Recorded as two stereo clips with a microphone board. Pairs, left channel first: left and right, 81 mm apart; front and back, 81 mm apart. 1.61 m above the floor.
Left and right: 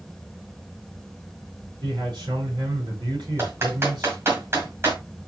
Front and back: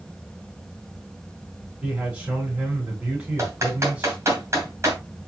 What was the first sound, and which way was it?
A man speaking, 110° right.